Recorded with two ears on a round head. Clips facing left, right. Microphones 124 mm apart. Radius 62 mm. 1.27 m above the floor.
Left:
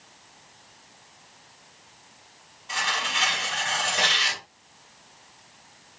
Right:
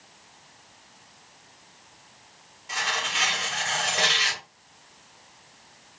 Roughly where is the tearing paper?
Centre.